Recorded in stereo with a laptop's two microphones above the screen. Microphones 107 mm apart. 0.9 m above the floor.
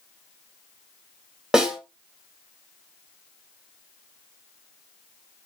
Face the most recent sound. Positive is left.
turn(degrees=-5)  # may be behind; listen again after turning